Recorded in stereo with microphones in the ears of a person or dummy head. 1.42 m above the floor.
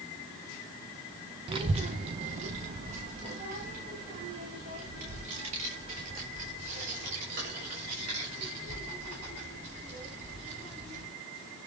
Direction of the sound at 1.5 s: 30° right (ahead or behind).